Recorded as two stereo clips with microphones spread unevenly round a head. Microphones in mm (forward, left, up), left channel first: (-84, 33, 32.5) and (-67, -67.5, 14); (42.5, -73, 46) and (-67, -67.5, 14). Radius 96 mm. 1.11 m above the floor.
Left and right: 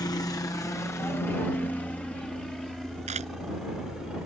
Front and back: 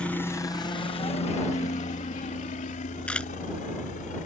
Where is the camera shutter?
75° right.